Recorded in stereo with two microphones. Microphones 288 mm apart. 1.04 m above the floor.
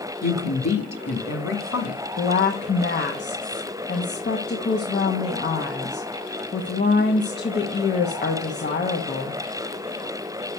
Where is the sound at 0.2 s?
65° left (ahead or behind), 2.5 m.